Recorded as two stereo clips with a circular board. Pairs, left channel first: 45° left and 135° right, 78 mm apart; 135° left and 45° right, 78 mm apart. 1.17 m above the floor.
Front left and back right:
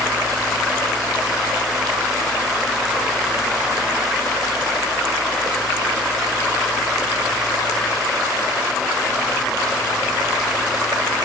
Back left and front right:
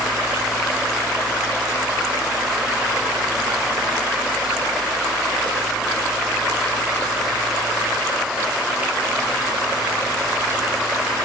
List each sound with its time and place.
Only background noise.